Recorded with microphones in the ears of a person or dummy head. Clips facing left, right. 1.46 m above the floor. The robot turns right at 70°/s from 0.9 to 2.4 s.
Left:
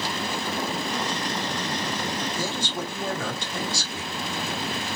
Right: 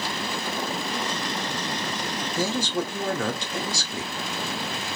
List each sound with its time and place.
2.4 s a man speaking: 55° right (ahead or behind), 0.9 m; by 4.1 s 60° right (ahead or behind), 0.9 m